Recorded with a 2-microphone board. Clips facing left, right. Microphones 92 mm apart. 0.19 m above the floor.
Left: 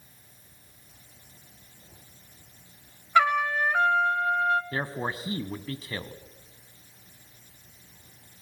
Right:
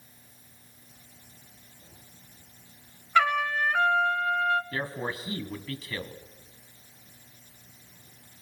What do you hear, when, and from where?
3.1 s a trumpet: 10° left (ahead or behind), 0.7 m
4.7 s a man speaking: 25° left (ahead or behind), 1.2 m